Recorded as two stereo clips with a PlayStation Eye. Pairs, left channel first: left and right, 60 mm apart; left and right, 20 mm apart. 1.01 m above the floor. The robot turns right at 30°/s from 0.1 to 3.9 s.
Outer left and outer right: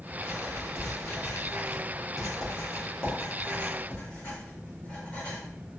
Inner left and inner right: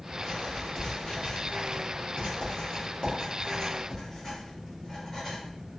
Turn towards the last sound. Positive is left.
turn(degrees=20)  # may be behind; listen again after turning